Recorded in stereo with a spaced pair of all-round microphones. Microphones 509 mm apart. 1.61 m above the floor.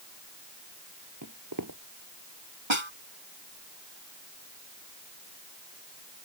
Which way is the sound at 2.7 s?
65° right (ahead or behind).